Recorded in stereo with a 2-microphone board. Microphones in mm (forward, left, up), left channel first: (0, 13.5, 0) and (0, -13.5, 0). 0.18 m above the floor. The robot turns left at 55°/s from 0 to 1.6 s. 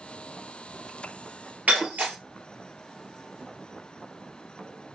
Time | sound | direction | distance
1.7 | breaking glass | 70° right (ahead or behind) | 1.9 m